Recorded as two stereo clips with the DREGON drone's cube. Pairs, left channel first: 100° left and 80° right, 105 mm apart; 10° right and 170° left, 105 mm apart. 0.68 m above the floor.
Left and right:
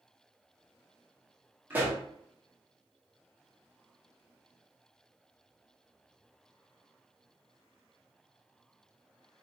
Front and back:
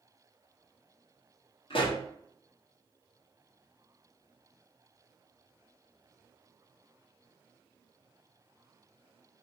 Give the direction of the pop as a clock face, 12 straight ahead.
12 o'clock.